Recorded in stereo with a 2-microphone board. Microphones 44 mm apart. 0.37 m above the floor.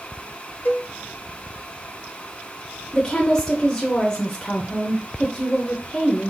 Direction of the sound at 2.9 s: 15° left (ahead or behind).